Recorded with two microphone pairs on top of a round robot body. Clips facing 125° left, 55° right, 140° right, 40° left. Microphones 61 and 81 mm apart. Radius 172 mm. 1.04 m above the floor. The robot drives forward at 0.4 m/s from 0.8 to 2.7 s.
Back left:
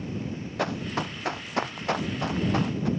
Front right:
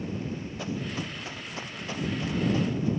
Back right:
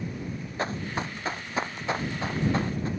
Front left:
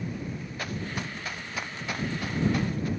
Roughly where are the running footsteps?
Behind.